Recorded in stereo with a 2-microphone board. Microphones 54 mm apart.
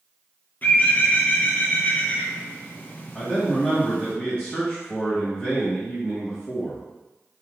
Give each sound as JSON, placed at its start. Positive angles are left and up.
{"t": 0.6, "sound": "a bird", "side_deg": 35, "distance_m": 0.9}
{"t": 3.1, "sound": "a man speaking", "side_deg": 25, "distance_m": 1.3}